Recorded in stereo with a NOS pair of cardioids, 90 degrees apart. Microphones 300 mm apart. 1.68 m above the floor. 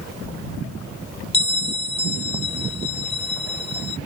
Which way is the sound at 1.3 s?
20° left.